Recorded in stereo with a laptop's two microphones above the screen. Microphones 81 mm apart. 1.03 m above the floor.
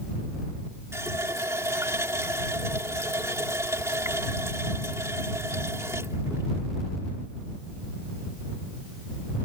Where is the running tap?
35° right (ahead or behind).